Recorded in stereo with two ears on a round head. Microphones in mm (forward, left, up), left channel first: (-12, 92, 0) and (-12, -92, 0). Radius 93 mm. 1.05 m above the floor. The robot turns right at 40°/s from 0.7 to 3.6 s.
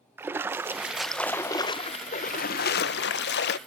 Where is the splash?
15° right, 0.5 m; by 3.6 s 100° left, 0.5 m.